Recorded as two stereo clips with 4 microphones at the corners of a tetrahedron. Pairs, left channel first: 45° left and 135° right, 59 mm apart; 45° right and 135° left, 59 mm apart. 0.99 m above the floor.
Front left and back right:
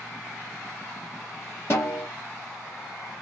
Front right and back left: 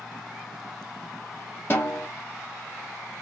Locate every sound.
1.7 s a snare drum: 5° left, 1.4 m